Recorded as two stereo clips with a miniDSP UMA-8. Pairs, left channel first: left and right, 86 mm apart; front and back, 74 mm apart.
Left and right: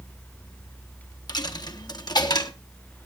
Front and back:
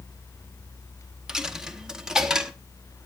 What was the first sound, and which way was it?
A dropped coin, 100° left.